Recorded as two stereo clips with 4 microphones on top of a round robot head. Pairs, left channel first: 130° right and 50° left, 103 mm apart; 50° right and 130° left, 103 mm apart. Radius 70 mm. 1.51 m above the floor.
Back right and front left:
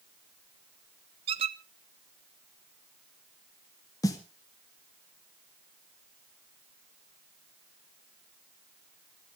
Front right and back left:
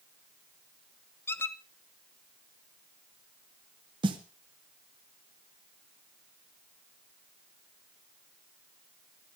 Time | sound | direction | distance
1.3 | a squeak | 15° left | 0.7 m
4.0 | a snare drum | 175° left | 2 m